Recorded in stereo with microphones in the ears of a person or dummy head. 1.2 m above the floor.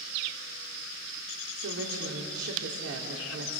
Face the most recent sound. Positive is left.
turn(degrees=-75)  # may be behind; listen again after turning